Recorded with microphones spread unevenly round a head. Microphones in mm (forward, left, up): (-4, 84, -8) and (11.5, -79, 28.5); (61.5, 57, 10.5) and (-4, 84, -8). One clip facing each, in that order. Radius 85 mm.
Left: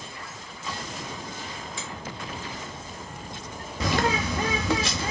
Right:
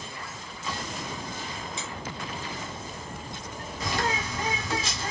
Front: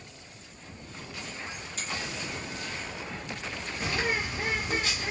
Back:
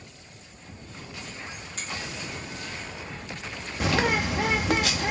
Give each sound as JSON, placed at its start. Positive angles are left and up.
{"t": 1.8, "sound": "a finger snap", "azimuth_deg": -160, "distance_m": 1.4}
{"t": 3.8, "sound": "a bird", "azimuth_deg": 135, "distance_m": 0.5}